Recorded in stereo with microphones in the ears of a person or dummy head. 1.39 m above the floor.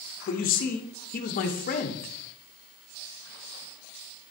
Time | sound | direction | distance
0.3 | a man speaking | 45° left (ahead or behind) | 0.9 m